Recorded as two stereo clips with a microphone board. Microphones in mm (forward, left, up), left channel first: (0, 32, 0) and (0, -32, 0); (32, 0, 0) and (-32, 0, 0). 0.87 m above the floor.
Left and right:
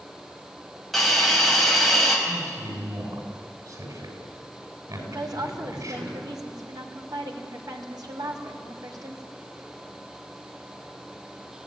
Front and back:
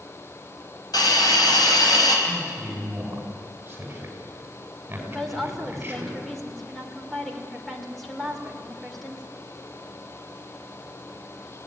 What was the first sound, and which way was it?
A hiss, straight ahead.